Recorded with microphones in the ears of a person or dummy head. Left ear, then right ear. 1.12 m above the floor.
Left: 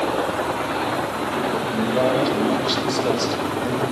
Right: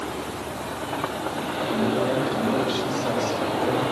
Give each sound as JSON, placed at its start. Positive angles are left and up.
{"t": 1.7, "sound": "a man speaking", "side_deg": 40, "distance_m": 4.0}